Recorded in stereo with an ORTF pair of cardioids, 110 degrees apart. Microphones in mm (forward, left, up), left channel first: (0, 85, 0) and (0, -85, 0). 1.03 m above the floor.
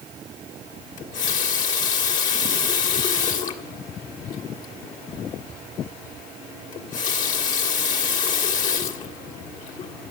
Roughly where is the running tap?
Ahead left.